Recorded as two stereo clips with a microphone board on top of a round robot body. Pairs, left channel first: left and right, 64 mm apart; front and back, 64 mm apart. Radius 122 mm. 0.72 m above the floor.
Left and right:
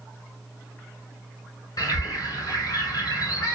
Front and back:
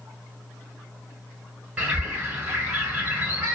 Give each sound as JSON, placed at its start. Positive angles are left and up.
{"t": 1.8, "sound": "a bird", "azimuth_deg": 110, "distance_m": 1.1}